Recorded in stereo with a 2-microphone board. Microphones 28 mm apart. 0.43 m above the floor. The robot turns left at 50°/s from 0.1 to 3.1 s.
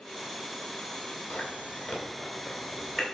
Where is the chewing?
60° left (ahead or behind), 2.5 m; by 3.0 s 5° right (ahead or behind), 2.5 m.